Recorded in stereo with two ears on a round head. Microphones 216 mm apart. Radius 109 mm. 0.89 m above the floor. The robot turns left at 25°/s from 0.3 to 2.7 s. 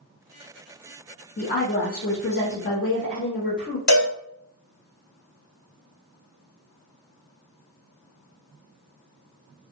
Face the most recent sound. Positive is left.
turn(degrees=80)